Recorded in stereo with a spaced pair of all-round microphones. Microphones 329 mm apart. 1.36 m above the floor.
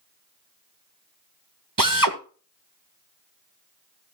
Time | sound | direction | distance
1.8 | a drill | 80° right | 1.3 m